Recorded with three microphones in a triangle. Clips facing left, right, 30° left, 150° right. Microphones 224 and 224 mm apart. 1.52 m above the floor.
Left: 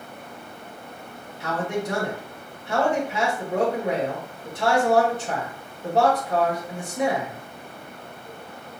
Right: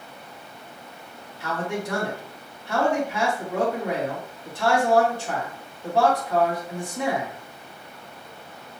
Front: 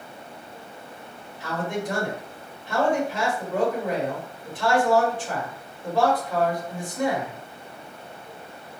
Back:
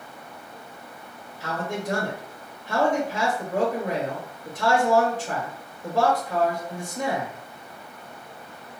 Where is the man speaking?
160° left, 2 m.